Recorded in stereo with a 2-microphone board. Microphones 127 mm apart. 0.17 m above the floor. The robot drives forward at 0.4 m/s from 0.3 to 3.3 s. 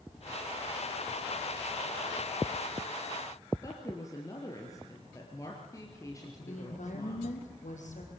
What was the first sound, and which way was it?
A woman speaking, 25° left (ahead or behind).